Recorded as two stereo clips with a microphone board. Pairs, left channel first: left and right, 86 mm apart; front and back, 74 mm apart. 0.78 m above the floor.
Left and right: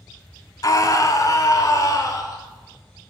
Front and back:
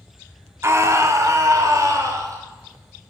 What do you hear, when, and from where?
0.6 s a scream: 130° left, 1.7 m; by 2.4 s 140° left, 4 m